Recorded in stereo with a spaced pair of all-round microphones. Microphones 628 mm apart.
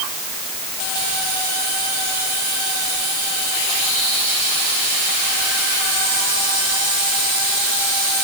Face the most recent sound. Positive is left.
No sound to turn to.